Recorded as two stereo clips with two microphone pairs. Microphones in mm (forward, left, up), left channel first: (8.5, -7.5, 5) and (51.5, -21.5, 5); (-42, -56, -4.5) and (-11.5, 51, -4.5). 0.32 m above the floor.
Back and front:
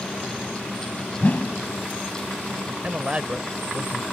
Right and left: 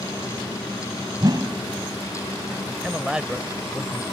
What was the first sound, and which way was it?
A whoosh, 115° left.